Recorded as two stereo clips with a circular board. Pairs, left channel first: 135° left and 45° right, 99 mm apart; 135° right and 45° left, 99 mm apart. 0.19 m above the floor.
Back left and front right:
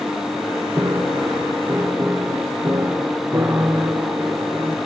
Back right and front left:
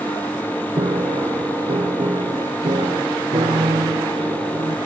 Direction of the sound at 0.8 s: 15° left.